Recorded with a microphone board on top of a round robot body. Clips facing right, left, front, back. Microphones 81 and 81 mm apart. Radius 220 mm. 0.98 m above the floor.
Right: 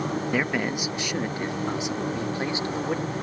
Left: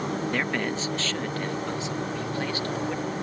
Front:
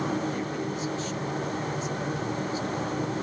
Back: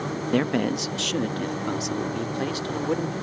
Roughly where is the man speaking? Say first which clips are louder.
Right 2 dB, back 8 dB; behind.